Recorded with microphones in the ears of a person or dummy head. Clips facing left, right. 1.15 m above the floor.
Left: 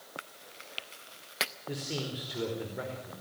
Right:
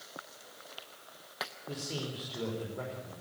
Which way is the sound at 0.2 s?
30° left (ahead or behind).